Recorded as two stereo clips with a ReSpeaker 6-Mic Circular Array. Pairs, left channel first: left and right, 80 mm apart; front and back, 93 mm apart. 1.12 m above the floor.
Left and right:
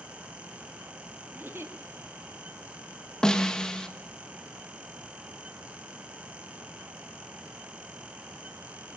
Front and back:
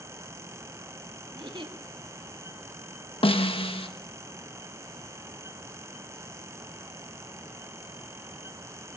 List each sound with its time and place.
1.3 s a giggle: 150° right, 1.7 m
3.2 s a snare drum: 10° left, 1.3 m